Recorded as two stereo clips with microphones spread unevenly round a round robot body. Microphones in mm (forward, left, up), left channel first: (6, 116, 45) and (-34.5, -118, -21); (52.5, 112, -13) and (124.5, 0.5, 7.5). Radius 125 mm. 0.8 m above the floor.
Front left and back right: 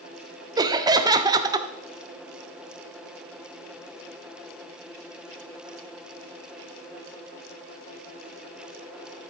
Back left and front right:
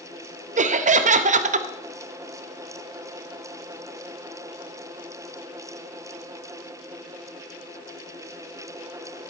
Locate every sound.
0.6 s laughter: 45° right, 0.7 m